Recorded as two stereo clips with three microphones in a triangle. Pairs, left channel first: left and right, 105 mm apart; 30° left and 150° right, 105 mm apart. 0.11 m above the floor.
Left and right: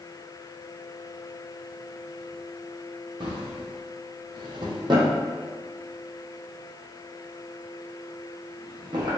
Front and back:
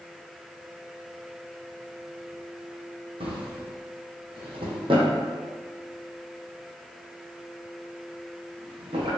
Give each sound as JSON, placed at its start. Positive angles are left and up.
{"t": 3.2, "sound": "a drawer", "azimuth_deg": -130, "distance_m": 1.2}